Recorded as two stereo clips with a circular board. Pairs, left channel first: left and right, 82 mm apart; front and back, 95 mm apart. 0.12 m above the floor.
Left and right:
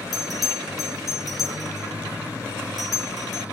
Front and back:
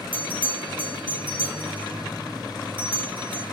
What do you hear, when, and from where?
0.1 s a bell: 175° left, 2.5 m